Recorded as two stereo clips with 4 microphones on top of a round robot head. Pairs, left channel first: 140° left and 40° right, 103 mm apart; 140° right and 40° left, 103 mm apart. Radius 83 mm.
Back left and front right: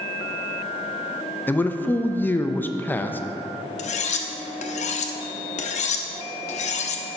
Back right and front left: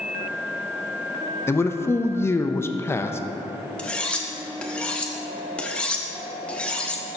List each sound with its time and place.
1.5 s a man speaking: 170° right, 0.5 m
3.8 s cutlery clinking: 135° left, 0.6 m